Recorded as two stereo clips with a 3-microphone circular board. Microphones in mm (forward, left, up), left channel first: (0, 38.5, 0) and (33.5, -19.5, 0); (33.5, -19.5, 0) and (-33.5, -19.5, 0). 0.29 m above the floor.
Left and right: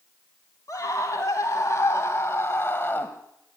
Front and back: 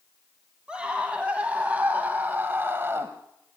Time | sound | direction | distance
0.7 | a scream | 110° left | 2.5 m